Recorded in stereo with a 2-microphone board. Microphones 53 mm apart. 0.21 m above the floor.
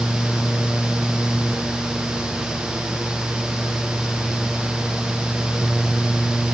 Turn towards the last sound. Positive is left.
No sound to turn to.